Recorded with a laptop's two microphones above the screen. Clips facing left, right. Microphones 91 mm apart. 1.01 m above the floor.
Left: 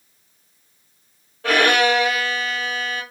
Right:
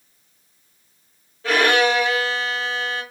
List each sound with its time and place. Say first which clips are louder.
1.4 s a violin: even; 65° left (ahead or behind), 1.3 m